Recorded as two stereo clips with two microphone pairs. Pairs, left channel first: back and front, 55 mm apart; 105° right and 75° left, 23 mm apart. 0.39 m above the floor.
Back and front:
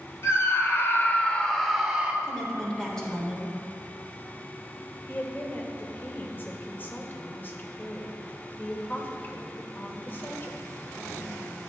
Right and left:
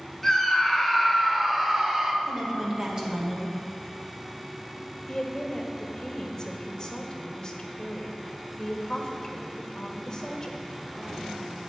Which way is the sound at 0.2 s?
175° left.